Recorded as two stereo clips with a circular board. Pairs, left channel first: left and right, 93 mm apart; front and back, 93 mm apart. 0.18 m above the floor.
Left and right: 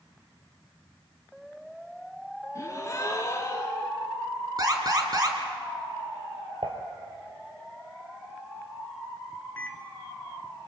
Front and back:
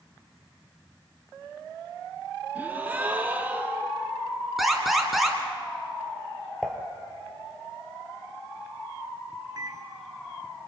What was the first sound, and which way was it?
A gasp, 120° left.